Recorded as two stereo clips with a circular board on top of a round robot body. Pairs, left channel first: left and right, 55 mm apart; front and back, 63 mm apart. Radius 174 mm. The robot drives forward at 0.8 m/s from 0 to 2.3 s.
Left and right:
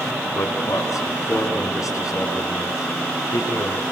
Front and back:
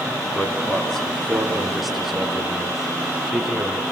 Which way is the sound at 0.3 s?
80° left.